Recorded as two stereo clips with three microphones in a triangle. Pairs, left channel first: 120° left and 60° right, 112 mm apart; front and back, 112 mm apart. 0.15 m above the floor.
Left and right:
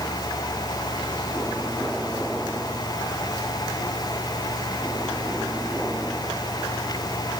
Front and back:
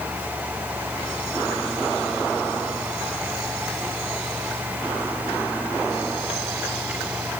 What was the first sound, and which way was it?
Only background noise.